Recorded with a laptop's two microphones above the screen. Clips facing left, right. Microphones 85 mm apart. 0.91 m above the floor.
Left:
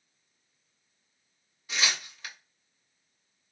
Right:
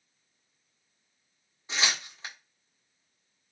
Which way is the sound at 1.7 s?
30° right (ahead or behind).